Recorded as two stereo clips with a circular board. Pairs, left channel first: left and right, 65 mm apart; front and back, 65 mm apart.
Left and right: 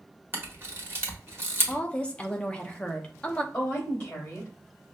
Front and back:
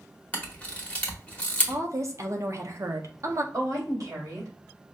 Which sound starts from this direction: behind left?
A woman speaking, at 3.5 s.